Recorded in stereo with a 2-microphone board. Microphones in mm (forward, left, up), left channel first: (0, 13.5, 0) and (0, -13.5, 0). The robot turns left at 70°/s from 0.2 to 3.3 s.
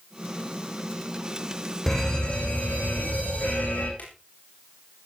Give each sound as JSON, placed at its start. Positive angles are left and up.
{"t": 1.9, "sound": "a fire alarm", "azimuth_deg": 165, "distance_m": 8.0}
{"t": 4.0, "sound": "a drawer", "side_deg": 65, "distance_m": 8.5}